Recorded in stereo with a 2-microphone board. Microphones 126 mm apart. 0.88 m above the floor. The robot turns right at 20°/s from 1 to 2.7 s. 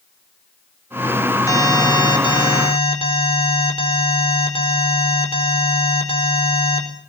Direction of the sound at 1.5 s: 25° left (ahead or behind).